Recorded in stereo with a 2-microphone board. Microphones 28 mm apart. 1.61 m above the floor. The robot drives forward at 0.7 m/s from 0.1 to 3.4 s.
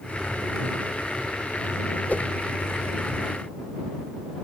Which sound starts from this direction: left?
A whoosh, at 2.1 s.